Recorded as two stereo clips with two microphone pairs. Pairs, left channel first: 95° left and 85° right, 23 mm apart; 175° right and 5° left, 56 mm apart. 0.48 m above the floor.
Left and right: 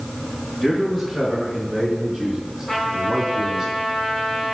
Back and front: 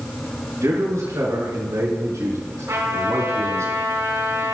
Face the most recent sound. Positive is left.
turn(degrees=25)